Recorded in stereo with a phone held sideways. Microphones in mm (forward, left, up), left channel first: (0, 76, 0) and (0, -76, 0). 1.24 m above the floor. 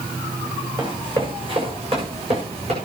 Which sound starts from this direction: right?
Running footsteps, at 0.8 s.